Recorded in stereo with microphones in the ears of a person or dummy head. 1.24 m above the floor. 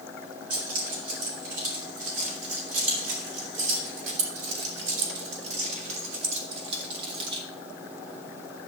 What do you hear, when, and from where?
0.5 s keys jangling: 55° right (ahead or behind), 5 m; by 7.4 s 35° right (ahead or behind), 1.9 m